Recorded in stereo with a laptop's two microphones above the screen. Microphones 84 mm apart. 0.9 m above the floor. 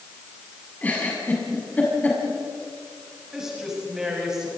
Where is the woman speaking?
5° right (ahead or behind), 7.5 m.